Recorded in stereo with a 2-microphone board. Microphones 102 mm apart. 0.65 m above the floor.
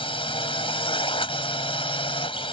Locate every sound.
0.0 s a drone: 65° left (ahead or behind)